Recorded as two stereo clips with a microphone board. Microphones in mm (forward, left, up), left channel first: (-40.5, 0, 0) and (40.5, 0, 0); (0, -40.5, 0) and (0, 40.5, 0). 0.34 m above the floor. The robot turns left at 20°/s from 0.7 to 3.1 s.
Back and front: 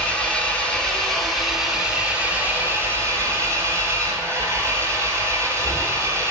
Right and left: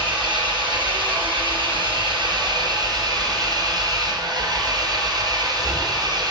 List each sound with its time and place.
0.0 s an engine running: 105° left, 3 m; by 6.3 s 55° left, 3 m